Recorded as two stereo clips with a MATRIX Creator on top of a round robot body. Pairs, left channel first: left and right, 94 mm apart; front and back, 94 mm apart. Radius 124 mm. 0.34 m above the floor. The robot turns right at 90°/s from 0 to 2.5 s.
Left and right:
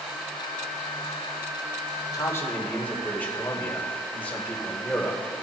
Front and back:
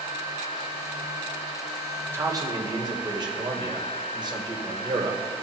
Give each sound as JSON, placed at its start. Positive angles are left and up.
{"t": 2.1, "sound": "a man speaking", "azimuth_deg": 125, "distance_m": 2.0}